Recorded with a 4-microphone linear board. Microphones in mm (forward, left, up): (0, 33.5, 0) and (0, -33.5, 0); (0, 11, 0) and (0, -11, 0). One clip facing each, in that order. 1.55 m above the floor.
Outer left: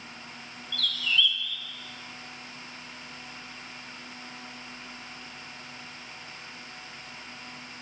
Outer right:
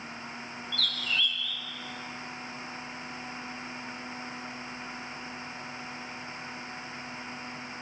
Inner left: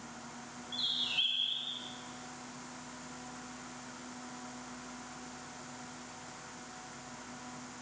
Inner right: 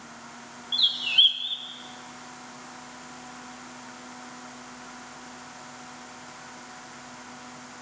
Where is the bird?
45° right (ahead or behind), 2 m.